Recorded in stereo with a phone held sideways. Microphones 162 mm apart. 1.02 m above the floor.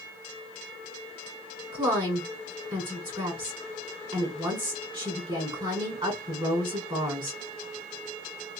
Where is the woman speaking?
30° right (ahead or behind), 4 m.